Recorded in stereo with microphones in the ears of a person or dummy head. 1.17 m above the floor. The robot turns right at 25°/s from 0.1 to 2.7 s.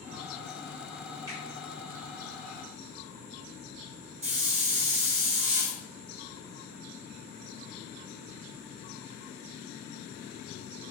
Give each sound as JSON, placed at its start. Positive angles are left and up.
{"t": 1.3, "sound": "a finger snap", "side_deg": -20, "distance_m": 0.7}
{"t": 4.2, "sound": "a hiss", "side_deg": -35, "distance_m": 0.8}